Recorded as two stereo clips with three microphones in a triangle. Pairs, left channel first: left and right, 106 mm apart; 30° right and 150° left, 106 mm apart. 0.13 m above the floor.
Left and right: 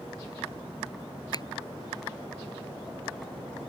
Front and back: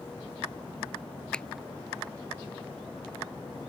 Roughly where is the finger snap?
Ahead left.